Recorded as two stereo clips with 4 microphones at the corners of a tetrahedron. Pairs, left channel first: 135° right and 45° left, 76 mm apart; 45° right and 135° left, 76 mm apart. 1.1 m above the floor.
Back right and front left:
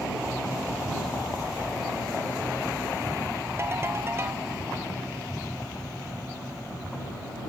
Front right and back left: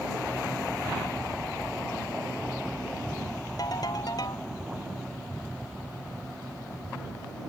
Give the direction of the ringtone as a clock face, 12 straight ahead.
12 o'clock.